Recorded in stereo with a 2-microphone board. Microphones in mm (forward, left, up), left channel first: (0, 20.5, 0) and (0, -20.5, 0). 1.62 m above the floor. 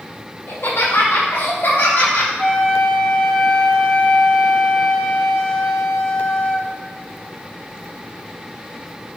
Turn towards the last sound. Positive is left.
turn(degrees=25)  # may be behind; listen again after turning